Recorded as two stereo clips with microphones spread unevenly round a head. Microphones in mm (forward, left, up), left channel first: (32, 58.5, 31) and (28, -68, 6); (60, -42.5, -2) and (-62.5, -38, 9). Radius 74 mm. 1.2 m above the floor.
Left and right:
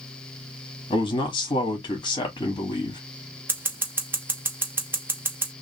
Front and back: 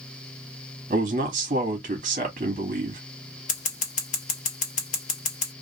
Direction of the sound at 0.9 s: 150° left.